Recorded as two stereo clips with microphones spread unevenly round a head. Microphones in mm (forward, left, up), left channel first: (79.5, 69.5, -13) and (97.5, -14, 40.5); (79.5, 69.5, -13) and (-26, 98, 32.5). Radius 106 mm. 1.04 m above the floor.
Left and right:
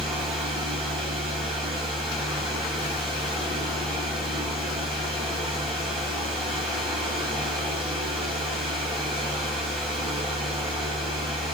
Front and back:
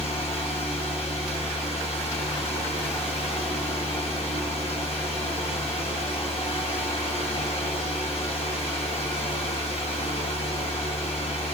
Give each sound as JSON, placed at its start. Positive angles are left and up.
{"t": 0.0, "sound": "a fan", "azimuth_deg": -95, "distance_m": 4.5}